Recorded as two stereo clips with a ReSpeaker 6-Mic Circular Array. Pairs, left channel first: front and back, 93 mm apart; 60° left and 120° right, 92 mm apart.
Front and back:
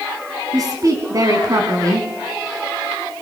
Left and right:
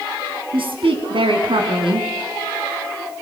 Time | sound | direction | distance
0.5 | a woman speaking | 130° right | 4 m